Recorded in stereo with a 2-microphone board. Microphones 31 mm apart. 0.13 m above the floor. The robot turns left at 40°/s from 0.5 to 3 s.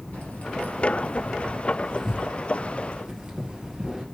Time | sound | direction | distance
0.1 | keys jangling | 60° left (ahead or behind) | 1.8 m